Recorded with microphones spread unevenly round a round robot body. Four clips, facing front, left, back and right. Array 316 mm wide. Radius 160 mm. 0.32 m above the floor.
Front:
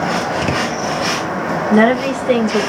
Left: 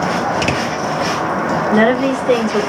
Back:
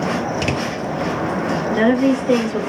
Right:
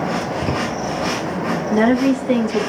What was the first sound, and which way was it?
A woman speaking, 60° left.